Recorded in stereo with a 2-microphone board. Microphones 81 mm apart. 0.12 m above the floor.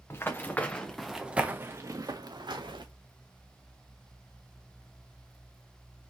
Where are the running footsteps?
30° left (ahead or behind), 1.2 m; by 2.9 s 70° right (ahead or behind), 1.2 m.